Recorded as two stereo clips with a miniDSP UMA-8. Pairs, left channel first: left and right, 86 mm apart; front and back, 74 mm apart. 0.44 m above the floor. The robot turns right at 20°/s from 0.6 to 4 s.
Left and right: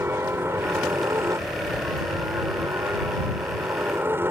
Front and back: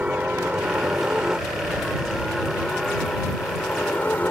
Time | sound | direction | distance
0.0 | a helicopter | 120° right | ?